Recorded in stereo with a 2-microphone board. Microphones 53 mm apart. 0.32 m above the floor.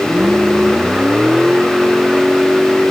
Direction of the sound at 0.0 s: 20° right (ahead or behind).